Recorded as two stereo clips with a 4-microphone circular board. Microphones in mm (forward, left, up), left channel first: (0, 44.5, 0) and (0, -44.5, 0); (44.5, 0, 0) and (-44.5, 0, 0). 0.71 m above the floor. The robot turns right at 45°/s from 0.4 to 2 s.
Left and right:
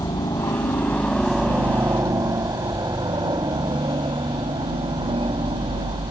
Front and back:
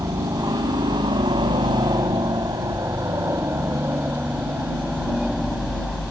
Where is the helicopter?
130° left; by 6.1 s 90° right.